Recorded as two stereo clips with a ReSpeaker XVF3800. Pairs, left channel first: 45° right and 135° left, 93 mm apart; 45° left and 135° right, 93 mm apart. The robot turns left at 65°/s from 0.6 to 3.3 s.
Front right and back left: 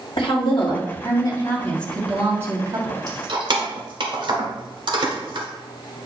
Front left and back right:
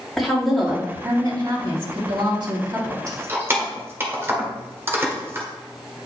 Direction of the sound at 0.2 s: 45° right.